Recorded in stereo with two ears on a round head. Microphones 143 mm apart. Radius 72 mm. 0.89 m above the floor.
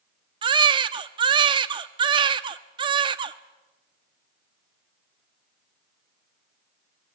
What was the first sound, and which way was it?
A baby crying, 30° right (ahead or behind).